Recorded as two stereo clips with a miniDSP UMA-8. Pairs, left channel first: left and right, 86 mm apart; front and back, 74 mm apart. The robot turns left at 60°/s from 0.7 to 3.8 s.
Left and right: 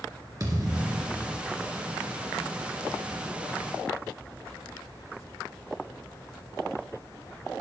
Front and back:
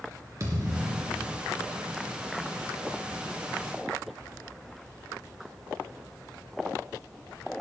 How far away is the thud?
About 2.5 m.